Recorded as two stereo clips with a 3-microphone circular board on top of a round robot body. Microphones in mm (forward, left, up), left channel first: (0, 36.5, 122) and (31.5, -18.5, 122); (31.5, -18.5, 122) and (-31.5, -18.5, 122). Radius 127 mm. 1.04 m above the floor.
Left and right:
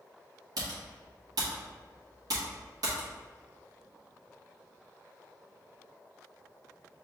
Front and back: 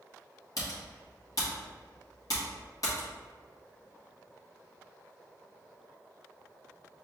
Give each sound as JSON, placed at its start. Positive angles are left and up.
{"t": 0.6, "sound": "typing on a keyboard", "azimuth_deg": -35, "distance_m": 1.1}